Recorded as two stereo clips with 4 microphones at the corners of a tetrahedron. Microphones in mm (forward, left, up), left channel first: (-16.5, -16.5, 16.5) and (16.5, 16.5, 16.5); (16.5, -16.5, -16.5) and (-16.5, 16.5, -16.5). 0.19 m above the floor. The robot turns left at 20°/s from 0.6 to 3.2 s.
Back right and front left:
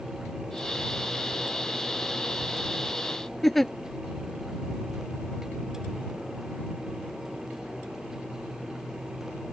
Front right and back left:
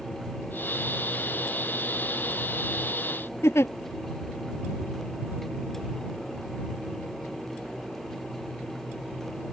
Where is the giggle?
50° right.